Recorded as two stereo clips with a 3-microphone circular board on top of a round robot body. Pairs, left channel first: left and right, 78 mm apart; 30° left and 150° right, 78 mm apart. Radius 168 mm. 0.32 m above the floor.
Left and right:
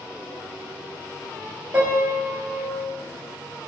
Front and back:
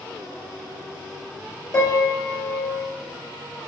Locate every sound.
1.7 s a piano: 15° right, 5 m